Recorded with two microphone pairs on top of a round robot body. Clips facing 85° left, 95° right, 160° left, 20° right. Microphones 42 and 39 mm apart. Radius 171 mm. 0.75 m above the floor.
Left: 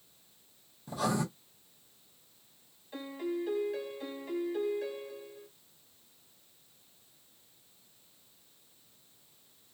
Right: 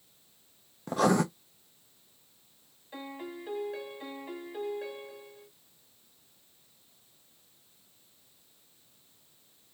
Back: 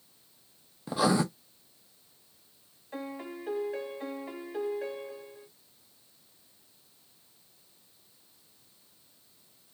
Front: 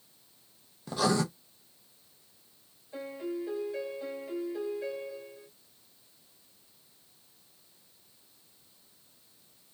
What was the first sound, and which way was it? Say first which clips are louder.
Writing: right 7 dB, back 2 dB; 130° right.